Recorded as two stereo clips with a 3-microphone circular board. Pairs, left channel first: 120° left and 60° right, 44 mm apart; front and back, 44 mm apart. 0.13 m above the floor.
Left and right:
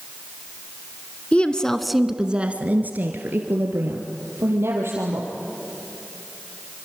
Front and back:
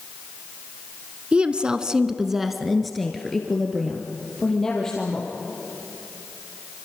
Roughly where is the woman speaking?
Behind left.